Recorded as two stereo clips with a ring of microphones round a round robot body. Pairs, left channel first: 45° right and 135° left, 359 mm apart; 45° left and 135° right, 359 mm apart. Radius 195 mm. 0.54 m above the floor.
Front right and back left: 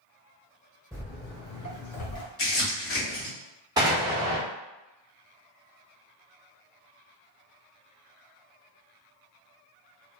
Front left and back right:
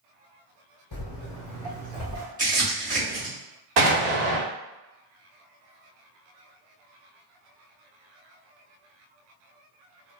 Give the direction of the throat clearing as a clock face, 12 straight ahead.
I don't hear throat clearing.